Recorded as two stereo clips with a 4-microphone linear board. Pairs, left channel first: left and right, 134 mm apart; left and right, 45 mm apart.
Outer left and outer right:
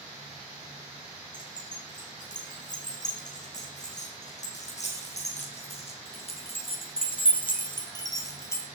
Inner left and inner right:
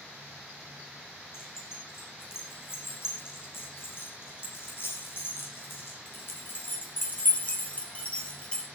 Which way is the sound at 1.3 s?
70° left (ahead or behind).